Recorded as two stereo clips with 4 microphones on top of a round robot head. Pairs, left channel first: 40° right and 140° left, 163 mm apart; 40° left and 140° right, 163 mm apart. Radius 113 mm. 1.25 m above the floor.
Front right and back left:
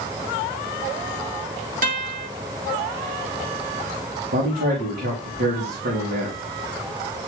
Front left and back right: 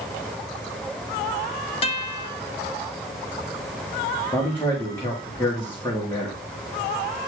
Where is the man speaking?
115° left, 2.5 m.